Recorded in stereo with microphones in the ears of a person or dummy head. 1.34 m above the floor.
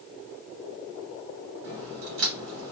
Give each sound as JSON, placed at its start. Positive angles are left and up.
{"t": 1.6, "sound": "a crack", "side_deg": -65, "distance_m": 1.3}